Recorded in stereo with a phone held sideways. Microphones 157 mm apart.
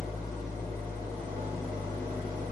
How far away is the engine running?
About 1.8 m.